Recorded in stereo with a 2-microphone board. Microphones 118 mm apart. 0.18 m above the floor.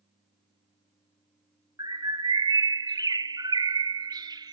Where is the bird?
35° right (ahead or behind), 0.6 m.